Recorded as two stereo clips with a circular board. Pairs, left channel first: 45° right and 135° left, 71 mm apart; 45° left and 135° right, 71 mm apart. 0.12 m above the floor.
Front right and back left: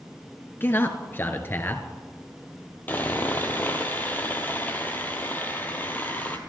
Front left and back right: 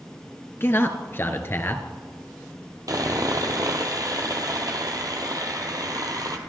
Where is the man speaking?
Straight ahead, 1.5 m.